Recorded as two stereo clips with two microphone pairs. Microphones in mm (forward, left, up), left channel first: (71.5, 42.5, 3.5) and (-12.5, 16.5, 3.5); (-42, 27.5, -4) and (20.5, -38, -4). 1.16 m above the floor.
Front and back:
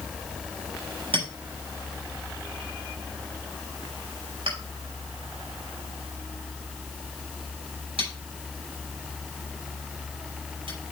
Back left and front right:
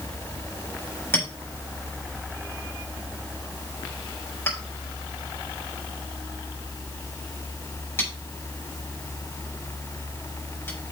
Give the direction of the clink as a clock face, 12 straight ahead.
5 o'clock.